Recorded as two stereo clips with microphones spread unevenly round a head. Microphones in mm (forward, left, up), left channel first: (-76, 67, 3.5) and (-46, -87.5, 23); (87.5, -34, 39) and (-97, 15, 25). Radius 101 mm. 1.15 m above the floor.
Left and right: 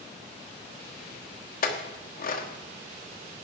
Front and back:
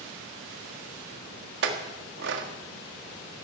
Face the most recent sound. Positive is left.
turn(degrees=130)